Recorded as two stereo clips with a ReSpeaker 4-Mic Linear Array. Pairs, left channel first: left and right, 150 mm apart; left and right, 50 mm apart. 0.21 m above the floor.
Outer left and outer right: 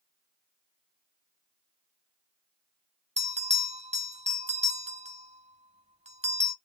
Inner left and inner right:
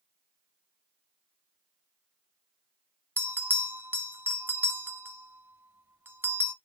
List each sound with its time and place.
3.2 s a bell: 45° right (ahead or behind), 0.6 m